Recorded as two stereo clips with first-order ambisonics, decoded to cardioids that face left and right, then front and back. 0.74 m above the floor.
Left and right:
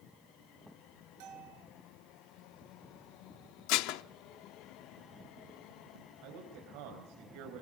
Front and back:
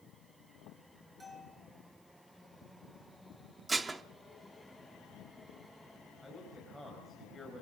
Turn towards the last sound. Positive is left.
turn(degrees=-90)